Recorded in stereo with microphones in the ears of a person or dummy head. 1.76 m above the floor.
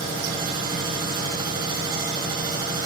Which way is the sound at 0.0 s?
25° right (ahead or behind).